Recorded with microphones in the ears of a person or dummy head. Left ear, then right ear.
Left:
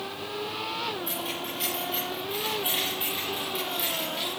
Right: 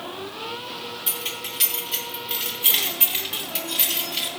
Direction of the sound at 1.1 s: 15° right (ahead or behind).